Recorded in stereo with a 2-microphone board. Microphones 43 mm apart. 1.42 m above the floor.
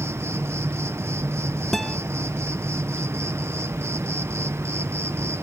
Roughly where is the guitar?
Centre.